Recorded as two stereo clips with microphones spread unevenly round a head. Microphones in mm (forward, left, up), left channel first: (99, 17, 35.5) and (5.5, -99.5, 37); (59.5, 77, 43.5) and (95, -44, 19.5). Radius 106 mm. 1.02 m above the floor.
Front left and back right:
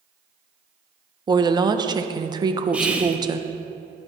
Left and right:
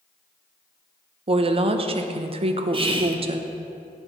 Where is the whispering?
45° right, 1.0 m.